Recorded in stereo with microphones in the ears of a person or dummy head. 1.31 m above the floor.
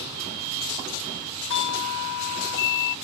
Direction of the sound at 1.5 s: 65° left (ahead or behind).